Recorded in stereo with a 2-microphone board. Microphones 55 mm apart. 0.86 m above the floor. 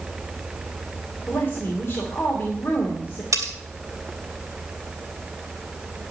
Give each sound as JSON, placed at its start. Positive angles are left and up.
{"t": 1.3, "sound": "a woman speaking", "side_deg": 40, "distance_m": 2.5}
{"t": 3.3, "sound": "cutlery clinking", "side_deg": -85, "distance_m": 2.5}